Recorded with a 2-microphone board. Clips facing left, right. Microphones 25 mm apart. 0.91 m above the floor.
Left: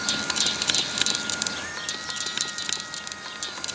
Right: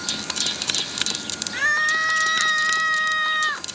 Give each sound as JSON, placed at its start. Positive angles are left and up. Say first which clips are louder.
{"t": 1.5, "sound": "a scream", "louder": "right 12 dB", "side_deg": -55}